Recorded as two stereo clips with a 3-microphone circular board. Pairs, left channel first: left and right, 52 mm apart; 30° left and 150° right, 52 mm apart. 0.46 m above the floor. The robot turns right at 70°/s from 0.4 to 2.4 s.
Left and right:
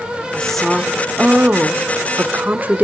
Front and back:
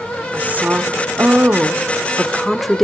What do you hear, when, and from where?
0.3 s a woman speaking: 160° left, 1.0 m; by 2.8 s 60° right, 1.0 m